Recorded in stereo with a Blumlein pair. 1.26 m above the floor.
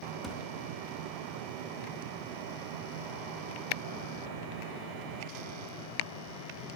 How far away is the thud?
About 1.6 m.